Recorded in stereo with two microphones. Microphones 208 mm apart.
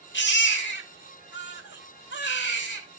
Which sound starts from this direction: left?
A baby crying, at 0.1 s.